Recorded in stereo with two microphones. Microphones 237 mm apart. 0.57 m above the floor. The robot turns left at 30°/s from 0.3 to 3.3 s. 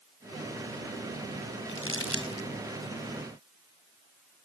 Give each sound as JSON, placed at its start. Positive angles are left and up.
{"t": 1.7, "sound": "crumpling", "side_deg": 55, "distance_m": 3.0}